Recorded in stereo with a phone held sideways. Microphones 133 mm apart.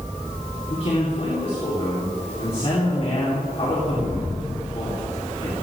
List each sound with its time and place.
0.7 s a man speaking: 45° left (ahead or behind), 4 m